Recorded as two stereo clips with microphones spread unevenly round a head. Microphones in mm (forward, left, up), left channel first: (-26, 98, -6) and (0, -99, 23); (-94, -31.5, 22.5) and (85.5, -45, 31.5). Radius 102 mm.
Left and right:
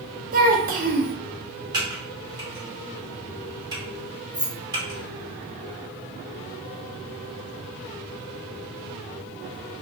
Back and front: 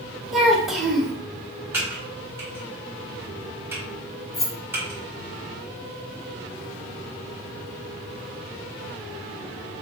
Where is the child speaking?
90° right, 0.7 m.